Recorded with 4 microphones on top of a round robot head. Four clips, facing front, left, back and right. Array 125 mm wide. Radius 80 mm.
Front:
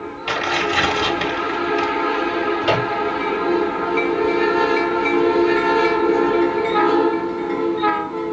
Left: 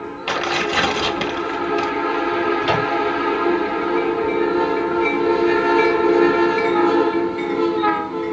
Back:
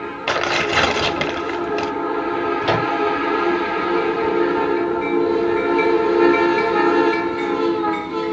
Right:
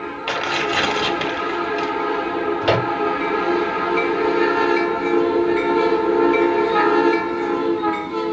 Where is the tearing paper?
175° left, 1.2 m.